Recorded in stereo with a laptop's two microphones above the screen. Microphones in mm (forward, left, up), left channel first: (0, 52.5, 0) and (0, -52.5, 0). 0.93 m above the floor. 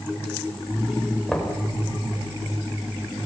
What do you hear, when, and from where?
1.3 s knocking: 5° left (ahead or behind), 3 m